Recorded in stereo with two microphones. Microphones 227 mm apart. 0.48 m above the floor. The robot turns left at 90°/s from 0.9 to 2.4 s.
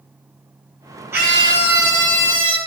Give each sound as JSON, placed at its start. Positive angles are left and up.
{"t": 1.1, "sound": "a scream", "azimuth_deg": -170, "distance_m": 5.0}